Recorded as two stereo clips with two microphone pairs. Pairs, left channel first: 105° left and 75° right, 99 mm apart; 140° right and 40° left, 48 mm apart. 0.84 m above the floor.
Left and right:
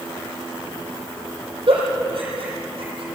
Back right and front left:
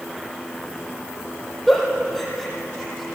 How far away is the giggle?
About 5.5 m.